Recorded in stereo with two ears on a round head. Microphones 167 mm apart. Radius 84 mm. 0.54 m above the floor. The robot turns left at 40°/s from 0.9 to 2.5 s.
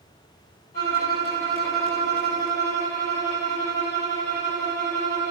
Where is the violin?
130° left, 1.9 m; by 5.3 s 70° left, 1.9 m.